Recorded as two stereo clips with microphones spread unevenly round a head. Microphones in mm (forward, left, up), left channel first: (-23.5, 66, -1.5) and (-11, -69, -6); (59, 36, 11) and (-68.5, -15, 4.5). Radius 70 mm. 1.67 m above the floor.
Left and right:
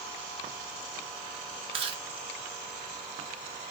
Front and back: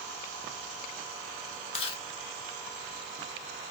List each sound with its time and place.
1.7 s chewing: 30° right, 1.8 m